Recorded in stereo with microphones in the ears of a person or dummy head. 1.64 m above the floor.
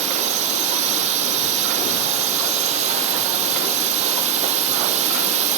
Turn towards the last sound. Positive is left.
turn(degrees=-35)  # may be behind; listen again after turning